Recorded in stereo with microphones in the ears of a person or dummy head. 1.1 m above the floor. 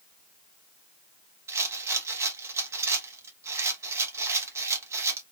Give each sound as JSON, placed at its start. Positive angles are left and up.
{"t": 1.5, "sound": "a rattle", "side_deg": -15, "distance_m": 0.7}